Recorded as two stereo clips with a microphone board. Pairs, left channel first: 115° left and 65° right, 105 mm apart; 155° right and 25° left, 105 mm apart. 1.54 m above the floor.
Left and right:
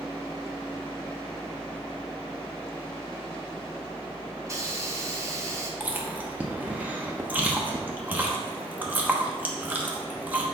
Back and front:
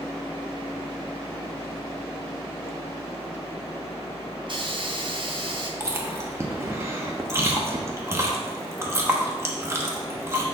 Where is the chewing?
10° right, 1.0 m.